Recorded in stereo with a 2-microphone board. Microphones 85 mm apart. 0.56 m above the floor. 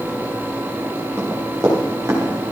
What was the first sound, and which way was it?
Running footsteps, 35° right (ahead or behind).